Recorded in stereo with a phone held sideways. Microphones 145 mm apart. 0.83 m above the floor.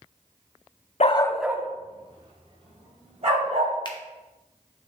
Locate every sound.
1.0 s a dog barking: 55° left (ahead or behind), 0.5 m; by 3.7 s 55° right (ahead or behind), 3.5 m
3.9 s a finger snap: 35° left (ahead or behind), 0.8 m